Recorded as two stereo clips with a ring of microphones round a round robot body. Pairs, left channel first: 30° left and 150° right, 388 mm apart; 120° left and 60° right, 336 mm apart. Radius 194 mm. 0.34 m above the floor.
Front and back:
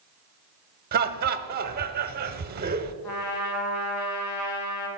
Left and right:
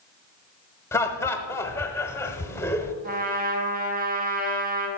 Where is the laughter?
165° right, 1.0 m.